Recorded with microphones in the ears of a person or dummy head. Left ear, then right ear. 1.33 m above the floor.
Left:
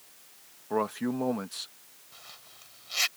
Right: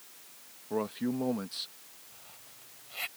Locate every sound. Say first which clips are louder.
0.7 s a man speaking: left 4 dB; 40° left (ahead or behind); by 1.7 s 20° left (ahead or behind)
2.1 s a zipper: left 9 dB; 60° left (ahead or behind)